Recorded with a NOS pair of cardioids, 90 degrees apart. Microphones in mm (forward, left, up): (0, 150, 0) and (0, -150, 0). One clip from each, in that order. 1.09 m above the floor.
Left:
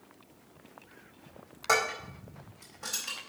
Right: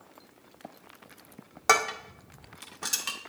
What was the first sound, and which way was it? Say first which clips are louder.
Dishes clattering: right 4 dB; 65° right.